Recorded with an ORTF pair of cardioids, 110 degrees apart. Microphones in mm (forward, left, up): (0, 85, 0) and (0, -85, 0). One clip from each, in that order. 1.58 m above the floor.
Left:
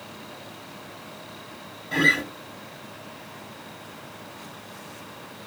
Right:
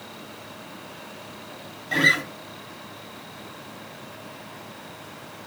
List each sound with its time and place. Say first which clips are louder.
1.9 s a guitar: right 1 dB; 25° right, 1.2 m